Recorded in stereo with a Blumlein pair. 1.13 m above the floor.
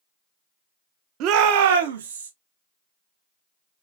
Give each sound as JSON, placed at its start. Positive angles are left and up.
{"t": 1.2, "sound": "a shout", "azimuth_deg": -35, "distance_m": 0.8}